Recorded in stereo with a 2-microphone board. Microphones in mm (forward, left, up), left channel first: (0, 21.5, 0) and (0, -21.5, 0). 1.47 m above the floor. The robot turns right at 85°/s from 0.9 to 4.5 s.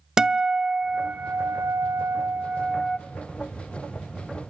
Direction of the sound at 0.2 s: 165° right.